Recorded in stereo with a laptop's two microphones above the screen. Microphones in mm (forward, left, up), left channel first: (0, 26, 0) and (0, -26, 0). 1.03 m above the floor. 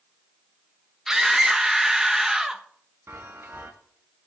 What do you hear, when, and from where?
1.1 s a scream: 10° right (ahead or behind), 1.4 m
3.1 s a chime: 55° right (ahead or behind), 1.2 m